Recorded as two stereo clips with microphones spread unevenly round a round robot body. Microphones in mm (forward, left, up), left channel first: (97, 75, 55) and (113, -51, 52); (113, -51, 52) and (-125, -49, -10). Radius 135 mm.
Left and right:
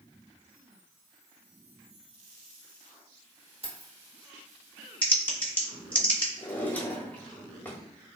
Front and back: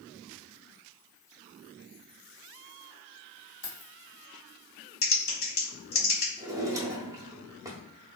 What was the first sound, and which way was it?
Keys jangling, 45° right.